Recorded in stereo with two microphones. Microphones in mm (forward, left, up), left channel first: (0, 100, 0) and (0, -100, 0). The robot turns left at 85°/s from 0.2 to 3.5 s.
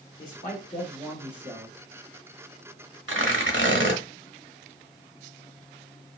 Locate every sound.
0.2 s a man speaking: 85° left, 1.3 m; by 1.8 s 45° right, 1.3 m
3.1 s tearing paper: 70° right, 1.0 m; by 4.0 s 105° right, 1.0 m